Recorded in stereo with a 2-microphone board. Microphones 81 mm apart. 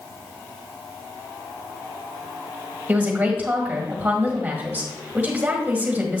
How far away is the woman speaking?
About 1.5 m.